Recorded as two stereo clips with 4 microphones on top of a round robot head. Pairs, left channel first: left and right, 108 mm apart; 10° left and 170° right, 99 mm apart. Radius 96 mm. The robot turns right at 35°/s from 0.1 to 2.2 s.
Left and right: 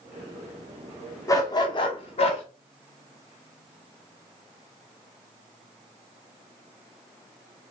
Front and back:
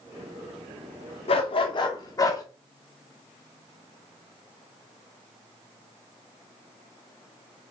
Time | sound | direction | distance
1.3 | a dog barking | 30° left | 1.6 m